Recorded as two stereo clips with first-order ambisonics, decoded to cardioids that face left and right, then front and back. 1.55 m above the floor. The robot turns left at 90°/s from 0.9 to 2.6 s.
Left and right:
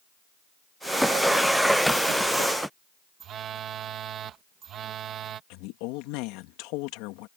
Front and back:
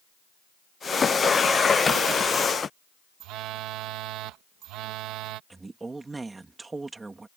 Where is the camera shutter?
No camera shutter in this recording.